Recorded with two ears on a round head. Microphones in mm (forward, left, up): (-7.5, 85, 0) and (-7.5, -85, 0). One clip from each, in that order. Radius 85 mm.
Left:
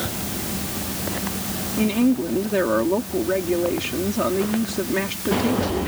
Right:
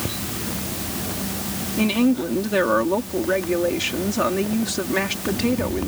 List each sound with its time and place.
1.8 s a woman speaking: 35° right (ahead or behind)